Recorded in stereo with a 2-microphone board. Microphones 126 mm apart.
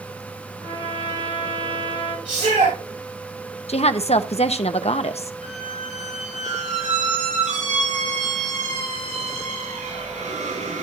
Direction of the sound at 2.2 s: 90° right.